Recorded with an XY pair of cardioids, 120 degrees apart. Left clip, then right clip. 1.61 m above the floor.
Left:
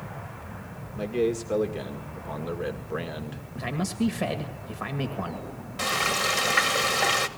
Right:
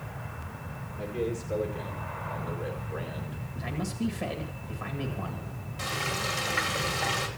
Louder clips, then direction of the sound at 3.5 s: Left 5 dB; 40° left.